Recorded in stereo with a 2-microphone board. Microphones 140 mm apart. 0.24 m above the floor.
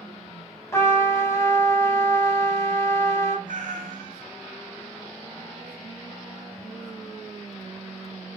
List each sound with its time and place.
0.7 s a trumpet: 20° left (ahead or behind), 0.8 m
3.5 s a cat meowing: 80° right, 0.7 m